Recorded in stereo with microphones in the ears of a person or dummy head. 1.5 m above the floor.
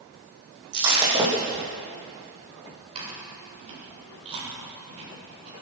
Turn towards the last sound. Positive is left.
turn(degrees=-35)  # may be behind; listen again after turning